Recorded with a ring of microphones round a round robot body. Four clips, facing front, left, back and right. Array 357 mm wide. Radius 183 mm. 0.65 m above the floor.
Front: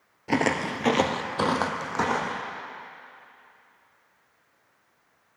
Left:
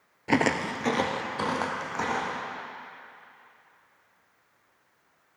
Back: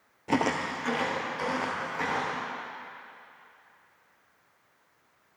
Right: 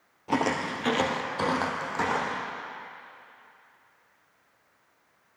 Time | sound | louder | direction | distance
0.3 | footsteps | left 2 dB, front 2 dB | 85° left | 0.6 m